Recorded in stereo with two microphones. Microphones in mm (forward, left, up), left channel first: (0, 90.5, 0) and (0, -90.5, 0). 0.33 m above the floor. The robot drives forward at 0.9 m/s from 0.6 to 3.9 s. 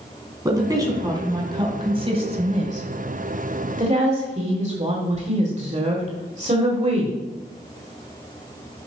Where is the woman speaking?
20° right (ahead or behind), 3 m; by 7.2 s 40° right (ahead or behind), 1.5 m.